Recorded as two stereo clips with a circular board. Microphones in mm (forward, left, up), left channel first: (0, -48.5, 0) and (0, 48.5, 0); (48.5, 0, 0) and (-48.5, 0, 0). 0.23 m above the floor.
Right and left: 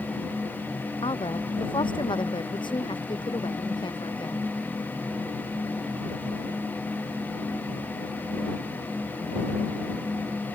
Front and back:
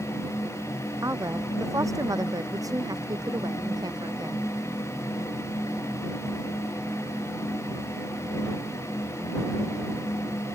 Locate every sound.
1.0 s a woman speaking: 120° right; by 4.5 s 130° right